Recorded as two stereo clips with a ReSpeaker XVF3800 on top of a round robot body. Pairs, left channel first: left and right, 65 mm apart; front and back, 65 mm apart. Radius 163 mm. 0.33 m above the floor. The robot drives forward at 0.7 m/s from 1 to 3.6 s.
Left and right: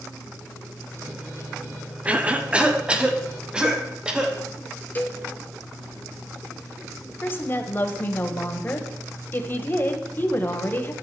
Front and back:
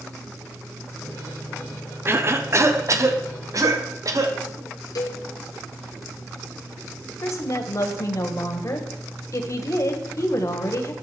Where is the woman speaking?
35° left, 2 m.